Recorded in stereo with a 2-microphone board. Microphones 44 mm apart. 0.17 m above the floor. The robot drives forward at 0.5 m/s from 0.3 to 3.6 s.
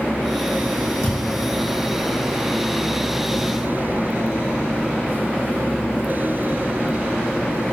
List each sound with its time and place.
1.0 s a thud: 85° left, 3.5 m; by 1.5 s 80° left, 3.5 m